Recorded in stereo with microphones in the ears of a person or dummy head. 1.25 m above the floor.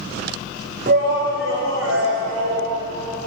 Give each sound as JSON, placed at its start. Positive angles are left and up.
{"t": 0.9, "sound": "a shout", "side_deg": -45, "distance_m": 0.7}